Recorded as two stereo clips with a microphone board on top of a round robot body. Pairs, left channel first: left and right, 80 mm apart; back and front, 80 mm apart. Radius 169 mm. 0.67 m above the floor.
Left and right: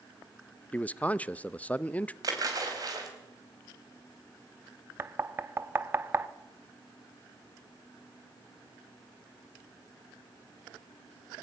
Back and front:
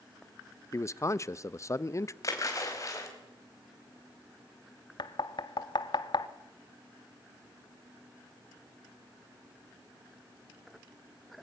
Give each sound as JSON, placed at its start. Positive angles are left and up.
{"t": 0.7, "sound": "a man speaking", "azimuth_deg": 155, "distance_m": 0.8}
{"t": 2.2, "sound": "a splash", "azimuth_deg": -130, "distance_m": 4.0}
{"t": 5.0, "sound": "knocking", "azimuth_deg": -150, "distance_m": 0.9}